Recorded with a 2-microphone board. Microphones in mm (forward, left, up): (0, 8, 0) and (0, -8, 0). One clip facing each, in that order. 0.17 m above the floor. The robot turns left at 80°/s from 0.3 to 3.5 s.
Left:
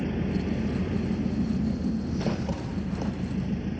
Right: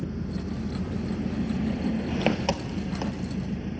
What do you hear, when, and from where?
0.0 s an engine running: 70° left, 1.4 m; by 3.8 s 175° left, 1.4 m